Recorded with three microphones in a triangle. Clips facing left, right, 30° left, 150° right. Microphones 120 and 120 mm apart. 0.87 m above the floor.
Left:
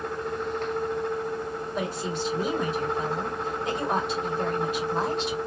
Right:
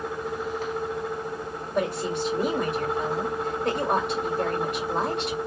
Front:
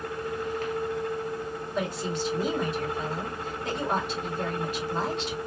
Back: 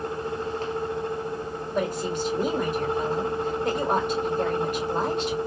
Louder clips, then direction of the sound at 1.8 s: Right 6 dB, back 4 dB; 115° right.